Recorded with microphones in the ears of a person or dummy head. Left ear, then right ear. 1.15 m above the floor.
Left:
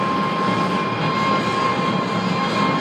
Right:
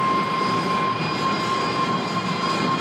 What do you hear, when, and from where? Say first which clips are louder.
0.0 s an engine running: left 1 dB; 25° right (ahead or behind), 0.9 m